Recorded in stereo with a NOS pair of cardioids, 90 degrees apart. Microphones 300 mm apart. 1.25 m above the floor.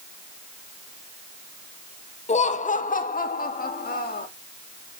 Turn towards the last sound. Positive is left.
turn(degrees=30)